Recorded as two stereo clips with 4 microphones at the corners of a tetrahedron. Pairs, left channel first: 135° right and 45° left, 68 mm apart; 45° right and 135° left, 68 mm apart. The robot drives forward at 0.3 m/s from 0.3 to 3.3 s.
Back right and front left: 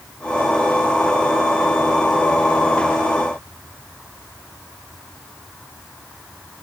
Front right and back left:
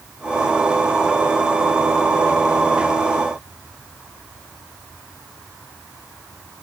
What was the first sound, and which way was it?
Only background noise.